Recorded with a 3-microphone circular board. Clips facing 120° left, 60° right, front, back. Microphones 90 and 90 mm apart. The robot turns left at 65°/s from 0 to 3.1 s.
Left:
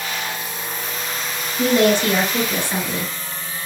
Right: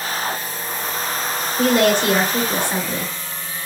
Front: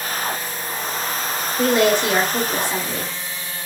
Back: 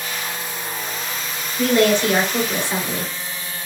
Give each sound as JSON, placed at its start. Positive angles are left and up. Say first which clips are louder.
{"t": 1.6, "sound": "a woman speaking", "louder": "even, back 1 dB", "azimuth_deg": -55, "distance_m": 2.0}